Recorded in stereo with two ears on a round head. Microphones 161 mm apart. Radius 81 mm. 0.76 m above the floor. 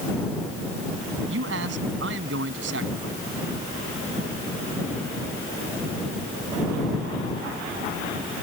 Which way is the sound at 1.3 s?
80° right.